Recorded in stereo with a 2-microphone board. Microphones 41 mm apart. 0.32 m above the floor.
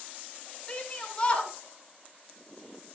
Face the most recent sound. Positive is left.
turn(degrees=25)  # may be behind; listen again after turning